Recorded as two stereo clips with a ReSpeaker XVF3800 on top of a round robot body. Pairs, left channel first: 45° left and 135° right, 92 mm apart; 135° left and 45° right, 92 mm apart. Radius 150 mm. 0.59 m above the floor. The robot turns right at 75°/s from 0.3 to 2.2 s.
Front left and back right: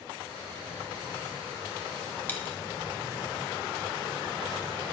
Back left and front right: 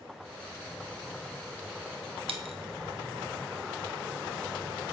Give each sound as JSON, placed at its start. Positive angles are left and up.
{"t": 2.3, "sound": "a dropped coin", "azimuth_deg": -25, "distance_m": 1.6}